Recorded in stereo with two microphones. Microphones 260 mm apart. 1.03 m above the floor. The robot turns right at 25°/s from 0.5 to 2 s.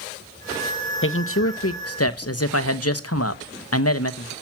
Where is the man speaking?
50° left (ahead or behind), 1.0 m; by 4.3 s 65° left (ahead or behind), 1.0 m.